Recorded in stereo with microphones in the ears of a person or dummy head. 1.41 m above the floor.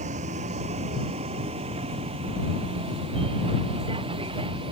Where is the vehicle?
40° right (ahead or behind); by 4.7 s 25° right (ahead or behind).